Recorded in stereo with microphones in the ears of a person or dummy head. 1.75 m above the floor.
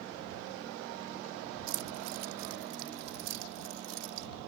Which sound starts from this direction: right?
Keys jangling, at 1.7 s.